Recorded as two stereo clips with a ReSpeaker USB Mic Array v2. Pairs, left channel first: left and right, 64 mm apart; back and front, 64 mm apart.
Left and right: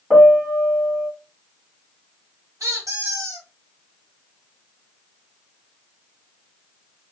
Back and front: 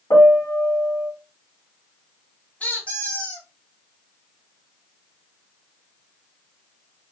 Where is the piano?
Straight behind, 1.0 m.